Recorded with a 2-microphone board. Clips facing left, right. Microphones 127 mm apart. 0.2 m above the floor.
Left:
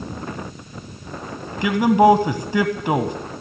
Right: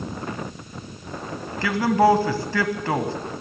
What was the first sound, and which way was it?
A man speaking, 20° left (ahead or behind).